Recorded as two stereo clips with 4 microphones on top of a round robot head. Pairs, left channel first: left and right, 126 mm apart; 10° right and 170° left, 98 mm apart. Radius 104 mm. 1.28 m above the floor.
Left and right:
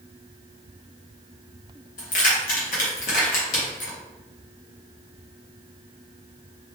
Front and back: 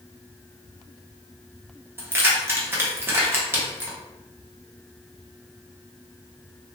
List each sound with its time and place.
2.0 s keys jangling: 105° left, 0.8 m